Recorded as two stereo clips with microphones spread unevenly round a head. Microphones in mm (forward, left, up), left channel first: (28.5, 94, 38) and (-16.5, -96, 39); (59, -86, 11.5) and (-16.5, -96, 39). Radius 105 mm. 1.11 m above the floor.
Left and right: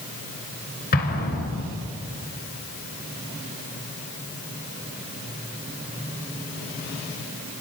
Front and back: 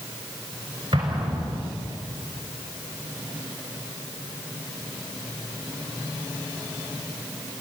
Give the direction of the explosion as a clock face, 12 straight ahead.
8 o'clock.